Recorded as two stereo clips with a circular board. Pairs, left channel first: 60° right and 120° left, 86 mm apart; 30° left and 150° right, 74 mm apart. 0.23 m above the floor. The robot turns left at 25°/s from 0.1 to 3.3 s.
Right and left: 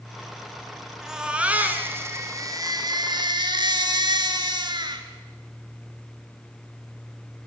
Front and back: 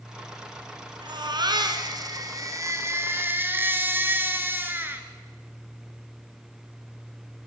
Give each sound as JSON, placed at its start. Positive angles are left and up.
{"t": 1.0, "sound": "a baby crying", "azimuth_deg": -155, "distance_m": 2.5}